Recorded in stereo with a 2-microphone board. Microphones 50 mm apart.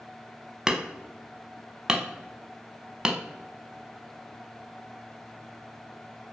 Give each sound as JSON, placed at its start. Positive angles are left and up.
{"t": 0.7, "sound": "hammering", "side_deg": -15, "distance_m": 0.6}